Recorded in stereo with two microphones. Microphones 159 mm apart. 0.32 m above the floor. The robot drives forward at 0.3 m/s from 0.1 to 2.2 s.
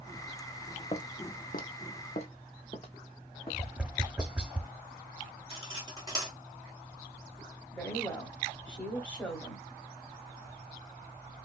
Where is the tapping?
5° right (ahead or behind), 0.5 m.